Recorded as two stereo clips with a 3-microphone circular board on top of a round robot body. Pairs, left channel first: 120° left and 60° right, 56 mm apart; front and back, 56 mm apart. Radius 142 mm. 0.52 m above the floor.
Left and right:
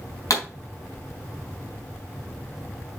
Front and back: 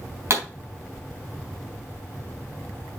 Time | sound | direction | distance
0.3 | a pop | 135° left | 4 m